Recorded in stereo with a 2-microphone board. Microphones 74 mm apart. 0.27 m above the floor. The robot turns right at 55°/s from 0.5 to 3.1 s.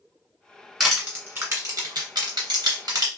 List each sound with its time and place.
0.8 s crushing: centre (ahead or behind), 1.8 m; by 3.1 s 50° right (ahead or behind), 1.8 m